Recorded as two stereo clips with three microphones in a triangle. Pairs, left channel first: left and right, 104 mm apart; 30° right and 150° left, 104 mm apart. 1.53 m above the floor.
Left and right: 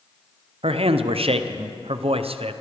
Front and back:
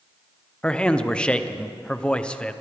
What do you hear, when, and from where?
0.6 s a man speaking: 110° right, 0.6 m